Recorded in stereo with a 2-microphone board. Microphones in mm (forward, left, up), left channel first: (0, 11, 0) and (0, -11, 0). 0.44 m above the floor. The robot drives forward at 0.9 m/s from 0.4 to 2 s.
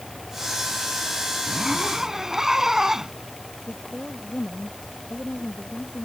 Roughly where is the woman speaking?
Left.